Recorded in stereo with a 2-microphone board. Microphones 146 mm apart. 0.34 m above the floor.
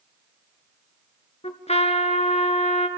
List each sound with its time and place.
1.4 s a trumpet: 50° left (ahead or behind), 1.0 m